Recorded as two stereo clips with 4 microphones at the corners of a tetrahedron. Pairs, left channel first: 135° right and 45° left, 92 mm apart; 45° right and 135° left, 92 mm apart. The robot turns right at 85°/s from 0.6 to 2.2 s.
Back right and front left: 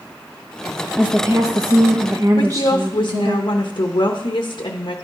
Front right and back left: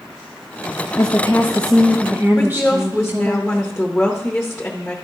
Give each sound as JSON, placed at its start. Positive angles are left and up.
{"t": 1.0, "sound": "a woman speaking", "azimuth_deg": -30, "distance_m": 0.8}
{"t": 2.4, "sound": "a woman speaking", "azimuth_deg": -130, "distance_m": 0.8}